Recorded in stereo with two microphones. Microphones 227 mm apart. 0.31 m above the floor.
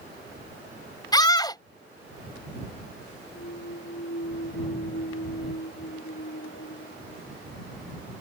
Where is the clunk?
70° left (ahead or behind).